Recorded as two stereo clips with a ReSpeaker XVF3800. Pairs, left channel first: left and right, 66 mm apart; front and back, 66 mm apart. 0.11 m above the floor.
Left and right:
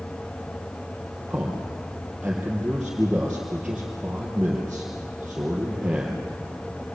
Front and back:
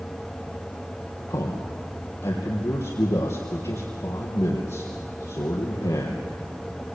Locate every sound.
1.3 s a man speaking: 20° right, 3.5 m